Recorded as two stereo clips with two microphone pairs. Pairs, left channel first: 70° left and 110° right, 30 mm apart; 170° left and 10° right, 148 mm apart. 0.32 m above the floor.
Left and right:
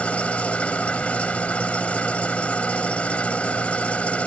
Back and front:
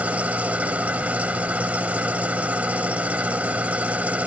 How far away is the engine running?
About 0.7 m.